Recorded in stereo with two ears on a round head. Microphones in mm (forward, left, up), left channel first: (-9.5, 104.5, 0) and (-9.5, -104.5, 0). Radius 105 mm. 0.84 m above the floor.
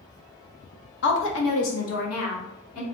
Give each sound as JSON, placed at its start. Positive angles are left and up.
{"t": 1.0, "sound": "a woman speaking", "side_deg": 50, "distance_m": 0.6}